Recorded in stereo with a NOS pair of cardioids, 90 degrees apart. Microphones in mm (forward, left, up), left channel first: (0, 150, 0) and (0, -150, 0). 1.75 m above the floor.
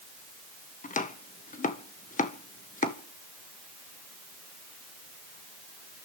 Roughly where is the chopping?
Ahead left.